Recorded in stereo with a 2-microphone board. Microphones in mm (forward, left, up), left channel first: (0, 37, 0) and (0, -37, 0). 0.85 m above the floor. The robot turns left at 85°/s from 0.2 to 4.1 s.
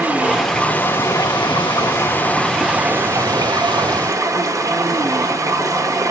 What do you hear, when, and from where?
0.0 s running water: 155° right, 0.8 m; by 6.1 s 130° right, 0.8 m